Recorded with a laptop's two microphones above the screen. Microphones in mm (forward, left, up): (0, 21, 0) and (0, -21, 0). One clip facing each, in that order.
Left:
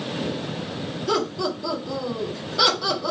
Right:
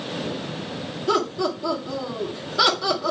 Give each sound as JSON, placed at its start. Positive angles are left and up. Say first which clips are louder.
{"t": 1.1, "sound": "laughter", "louder": "right 2 dB", "side_deg": -5, "distance_m": 1.6}